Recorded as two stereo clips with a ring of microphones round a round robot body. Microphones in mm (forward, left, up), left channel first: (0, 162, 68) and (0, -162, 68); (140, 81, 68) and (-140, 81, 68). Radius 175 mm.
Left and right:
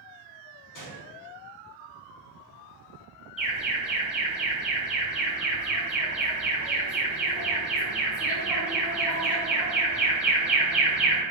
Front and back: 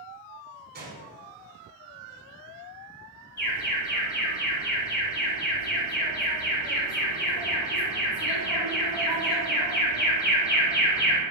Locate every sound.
0.7 s a gunshot: 120° left, 0.9 m
3.4 s an alarm: 5° right, 1.2 m